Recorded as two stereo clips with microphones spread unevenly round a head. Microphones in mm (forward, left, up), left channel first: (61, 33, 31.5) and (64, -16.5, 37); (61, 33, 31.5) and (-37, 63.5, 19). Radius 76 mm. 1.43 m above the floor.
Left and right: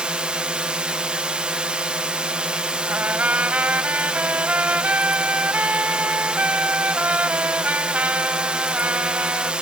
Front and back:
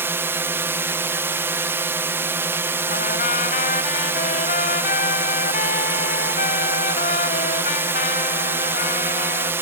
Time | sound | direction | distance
0.0 | a drone | 155° right | ?
2.9 | a trumpet | 30° right | ?